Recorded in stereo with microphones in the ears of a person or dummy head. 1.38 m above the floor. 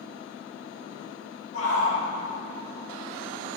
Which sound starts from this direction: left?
A shout, at 1.5 s.